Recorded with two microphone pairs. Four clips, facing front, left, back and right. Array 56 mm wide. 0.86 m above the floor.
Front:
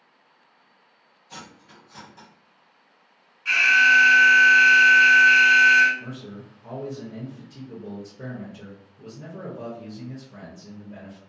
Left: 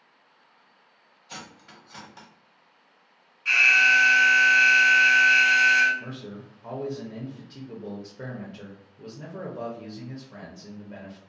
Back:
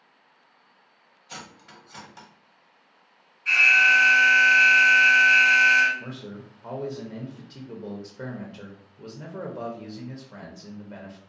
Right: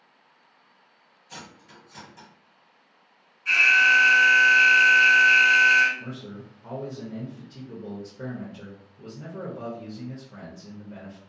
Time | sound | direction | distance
1.3 | cutlery clinking | 135° left | 0.8 m
3.5 | an alarm | 45° left | 1.9 m
6.0 | a man speaking | 160° left | 0.6 m